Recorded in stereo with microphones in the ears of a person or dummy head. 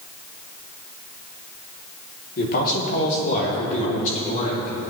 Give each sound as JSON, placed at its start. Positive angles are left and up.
{"t": 2.4, "sound": "a man speaking", "side_deg": 50, "distance_m": 3.5}